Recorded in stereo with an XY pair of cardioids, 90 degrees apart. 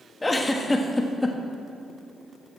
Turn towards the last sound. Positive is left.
turn(degrees=20)